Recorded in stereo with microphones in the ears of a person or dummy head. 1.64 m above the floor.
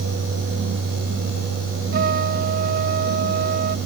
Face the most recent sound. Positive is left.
turn(degrees=-50)  # may be behind; listen again after turning